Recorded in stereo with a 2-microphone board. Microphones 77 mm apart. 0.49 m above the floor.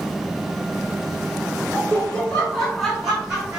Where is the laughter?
30° left (ahead or behind), 1.2 m; by 3.6 s 10° right (ahead or behind), 1.8 m.